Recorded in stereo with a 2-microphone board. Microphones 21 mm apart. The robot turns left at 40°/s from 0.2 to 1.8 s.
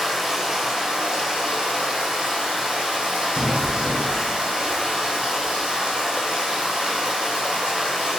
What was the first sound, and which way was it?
Running water, 15° right.